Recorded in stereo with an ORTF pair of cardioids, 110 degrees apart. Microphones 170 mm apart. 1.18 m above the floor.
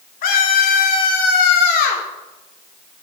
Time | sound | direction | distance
0.2 | a scream | 65° left | 2.5 m